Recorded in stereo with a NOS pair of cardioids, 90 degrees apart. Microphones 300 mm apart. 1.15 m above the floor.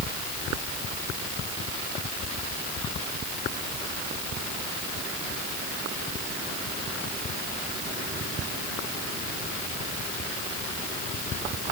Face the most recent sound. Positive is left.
No sound to turn to.